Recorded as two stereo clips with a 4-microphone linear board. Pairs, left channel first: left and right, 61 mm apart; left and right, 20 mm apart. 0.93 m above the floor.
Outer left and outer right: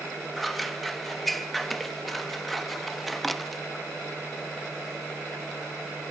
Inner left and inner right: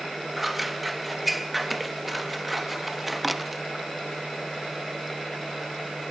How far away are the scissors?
About 0.5 m.